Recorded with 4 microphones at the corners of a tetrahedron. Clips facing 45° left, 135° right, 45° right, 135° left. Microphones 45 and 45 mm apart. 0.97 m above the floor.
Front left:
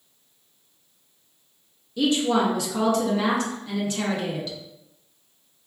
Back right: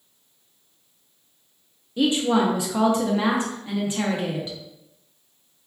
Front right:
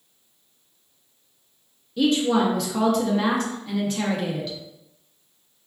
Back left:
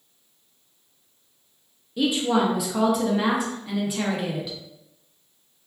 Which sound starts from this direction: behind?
A woman speaking, at 2.0 s.